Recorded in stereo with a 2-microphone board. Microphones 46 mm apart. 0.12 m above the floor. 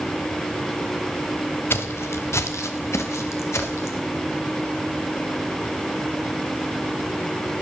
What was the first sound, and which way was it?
Footsteps, 55° left (ahead or behind).